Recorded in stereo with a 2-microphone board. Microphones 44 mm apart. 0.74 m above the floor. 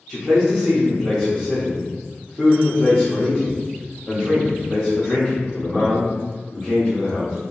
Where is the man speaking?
10° right (ahead or behind), 1.2 m.